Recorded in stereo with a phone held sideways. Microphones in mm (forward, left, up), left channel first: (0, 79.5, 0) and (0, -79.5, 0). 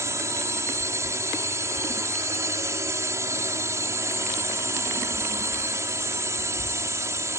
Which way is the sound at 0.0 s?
20° right (ahead or behind).